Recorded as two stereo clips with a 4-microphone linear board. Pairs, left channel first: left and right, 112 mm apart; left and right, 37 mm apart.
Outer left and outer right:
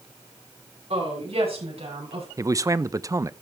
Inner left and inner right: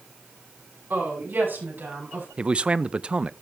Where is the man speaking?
30° right (ahead or behind), 0.5 m.